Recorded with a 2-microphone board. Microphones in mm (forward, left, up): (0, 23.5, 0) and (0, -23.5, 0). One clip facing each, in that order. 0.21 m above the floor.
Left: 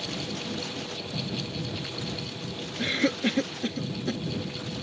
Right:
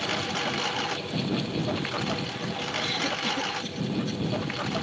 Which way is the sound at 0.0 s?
65° right (ahead or behind).